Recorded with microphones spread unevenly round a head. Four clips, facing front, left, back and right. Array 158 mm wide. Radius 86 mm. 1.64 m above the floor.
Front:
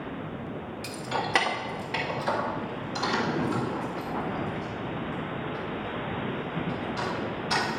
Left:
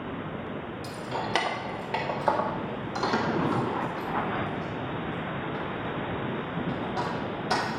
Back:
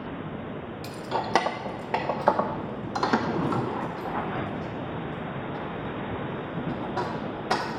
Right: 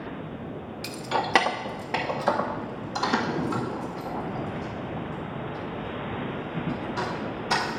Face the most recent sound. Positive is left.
turn(degrees=170)